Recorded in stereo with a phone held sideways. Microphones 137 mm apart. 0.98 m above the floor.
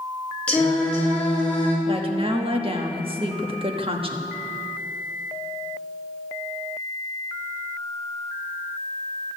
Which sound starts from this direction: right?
A woman speaking, at 1.9 s.